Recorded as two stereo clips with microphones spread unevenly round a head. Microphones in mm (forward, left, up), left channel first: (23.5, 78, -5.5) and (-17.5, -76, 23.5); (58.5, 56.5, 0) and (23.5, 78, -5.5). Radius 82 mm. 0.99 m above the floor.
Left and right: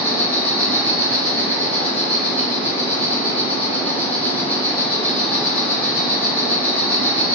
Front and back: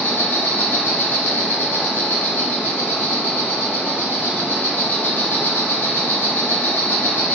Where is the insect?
10° right, 0.9 m.